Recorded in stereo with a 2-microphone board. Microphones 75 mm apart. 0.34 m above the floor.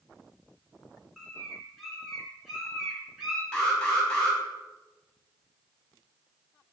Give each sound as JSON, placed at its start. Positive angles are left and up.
{"t": 1.2, "sound": "a bird", "side_deg": 0, "distance_m": 3.5}
{"t": 3.5, "sound": "an alarm", "side_deg": 10, "distance_m": 3.0}